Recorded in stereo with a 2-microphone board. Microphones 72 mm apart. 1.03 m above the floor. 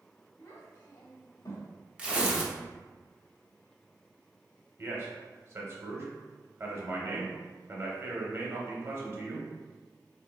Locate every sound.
0.4 s a child speaking: 60° left (ahead or behind), 0.8 m; by 1.7 s 35° left (ahead or behind), 1.0 m
2.0 s tearing paper: 15° right (ahead or behind), 0.6 m
4.8 s a man speaking: 40° right (ahead or behind), 0.9 m